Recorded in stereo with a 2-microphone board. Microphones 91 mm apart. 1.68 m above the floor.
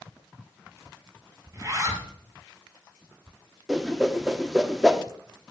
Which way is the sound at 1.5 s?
35° right (ahead or behind).